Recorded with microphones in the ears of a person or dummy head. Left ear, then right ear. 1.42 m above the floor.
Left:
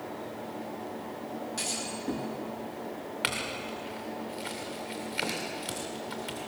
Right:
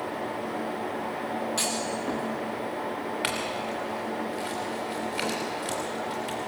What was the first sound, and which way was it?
A clunk, 30° right (ahead or behind).